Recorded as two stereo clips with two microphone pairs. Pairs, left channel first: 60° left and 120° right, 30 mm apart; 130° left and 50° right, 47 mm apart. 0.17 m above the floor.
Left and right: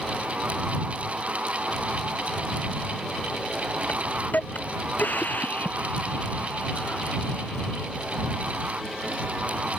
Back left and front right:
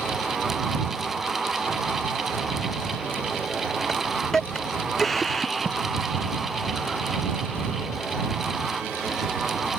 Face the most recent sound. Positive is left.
turn(degrees=45)